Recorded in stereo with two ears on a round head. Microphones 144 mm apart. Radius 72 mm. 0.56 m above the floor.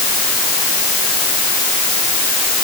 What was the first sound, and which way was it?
Only background noise.